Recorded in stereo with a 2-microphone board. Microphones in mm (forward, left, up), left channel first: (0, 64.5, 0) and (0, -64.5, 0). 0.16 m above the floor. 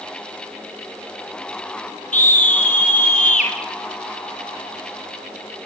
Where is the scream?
75° left (ahead or behind), 5.5 m; by 3.5 s 70° left (ahead or behind), 6 m.